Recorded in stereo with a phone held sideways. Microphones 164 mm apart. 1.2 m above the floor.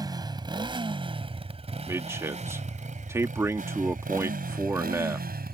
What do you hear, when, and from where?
0.0 s a motorcycle: 25° right (ahead or behind); by 5.5 s 70° right (ahead or behind)
1.9 s a man speaking: 15° right (ahead or behind)